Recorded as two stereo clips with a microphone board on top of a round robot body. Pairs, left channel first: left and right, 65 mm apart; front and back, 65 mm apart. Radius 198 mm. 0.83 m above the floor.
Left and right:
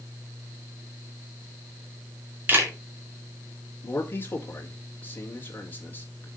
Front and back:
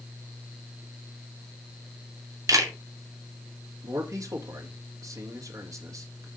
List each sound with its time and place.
2.5 s a camera shutter: 150° right, 2.5 m
3.8 s a man speaking: 150° left, 2.5 m